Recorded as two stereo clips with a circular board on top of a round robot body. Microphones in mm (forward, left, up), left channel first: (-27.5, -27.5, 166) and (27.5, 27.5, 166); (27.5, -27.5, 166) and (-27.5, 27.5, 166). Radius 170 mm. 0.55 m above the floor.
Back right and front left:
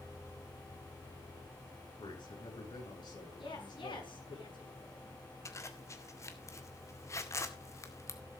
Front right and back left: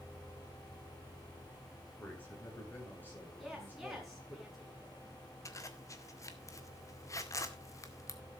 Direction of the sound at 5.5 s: 90° right.